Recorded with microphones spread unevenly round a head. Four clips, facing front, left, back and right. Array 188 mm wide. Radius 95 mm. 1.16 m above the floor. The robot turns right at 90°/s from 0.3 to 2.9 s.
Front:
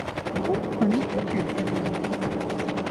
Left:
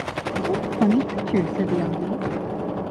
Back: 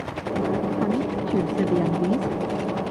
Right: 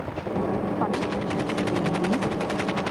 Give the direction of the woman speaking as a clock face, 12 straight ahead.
11 o'clock.